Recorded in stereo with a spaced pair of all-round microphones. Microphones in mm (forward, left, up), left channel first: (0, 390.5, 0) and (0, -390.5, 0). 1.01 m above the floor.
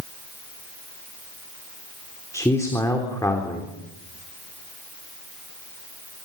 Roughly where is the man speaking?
Centre.